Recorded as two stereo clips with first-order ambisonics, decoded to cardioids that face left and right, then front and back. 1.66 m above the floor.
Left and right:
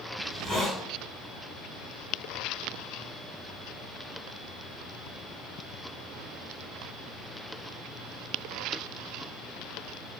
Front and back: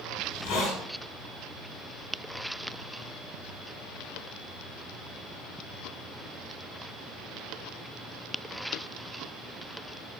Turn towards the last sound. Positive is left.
turn(degrees=0)